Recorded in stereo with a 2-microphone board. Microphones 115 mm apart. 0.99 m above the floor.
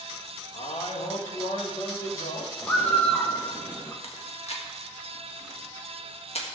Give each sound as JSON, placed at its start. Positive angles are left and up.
{"t": 0.5, "sound": "a man speaking", "side_deg": 60, "distance_m": 1.7}
{"t": 2.6, "sound": "a bird", "side_deg": 15, "distance_m": 1.1}
{"t": 4.0, "sound": "chewing", "side_deg": 60, "distance_m": 1.6}